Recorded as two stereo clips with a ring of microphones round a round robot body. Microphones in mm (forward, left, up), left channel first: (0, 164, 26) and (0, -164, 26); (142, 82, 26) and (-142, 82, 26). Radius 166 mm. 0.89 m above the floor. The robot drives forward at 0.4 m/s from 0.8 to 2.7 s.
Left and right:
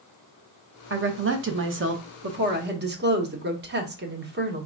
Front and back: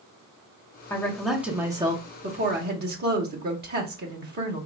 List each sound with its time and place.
0.9 s a woman speaking: 75° right, 1.0 m; by 4.7 s 135° right, 1.1 m